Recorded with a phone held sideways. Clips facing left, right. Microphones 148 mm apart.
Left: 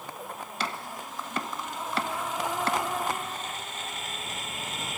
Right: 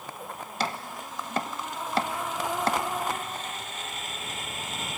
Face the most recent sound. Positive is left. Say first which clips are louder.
# right 4 dB
turn(degrees=-40)  # may be behind; listen again after turning